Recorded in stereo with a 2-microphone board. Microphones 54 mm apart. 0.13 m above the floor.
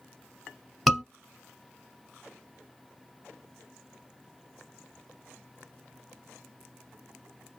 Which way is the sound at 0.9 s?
Centre (ahead or behind).